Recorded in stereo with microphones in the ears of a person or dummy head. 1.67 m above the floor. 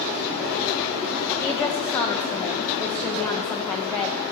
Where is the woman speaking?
Centre (ahead or behind), 0.9 m.